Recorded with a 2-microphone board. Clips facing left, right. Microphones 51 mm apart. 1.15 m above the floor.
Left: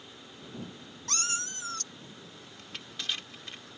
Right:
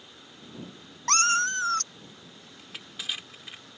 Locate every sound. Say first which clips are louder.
1.1 s a cat meowing: right 12 dB; 55° right (ahead or behind)
2.6 s crushing: even; 10° right (ahead or behind)